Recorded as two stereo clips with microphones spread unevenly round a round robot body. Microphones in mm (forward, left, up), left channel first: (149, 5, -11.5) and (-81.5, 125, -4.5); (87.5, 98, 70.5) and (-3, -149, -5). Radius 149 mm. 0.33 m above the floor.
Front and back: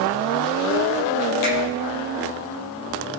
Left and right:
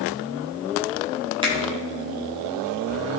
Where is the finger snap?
40° right, 6 m.